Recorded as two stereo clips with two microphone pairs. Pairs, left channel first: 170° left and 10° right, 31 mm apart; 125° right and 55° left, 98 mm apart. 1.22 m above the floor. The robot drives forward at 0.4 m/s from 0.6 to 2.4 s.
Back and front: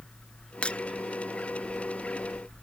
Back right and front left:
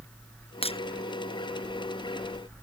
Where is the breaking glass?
135° right.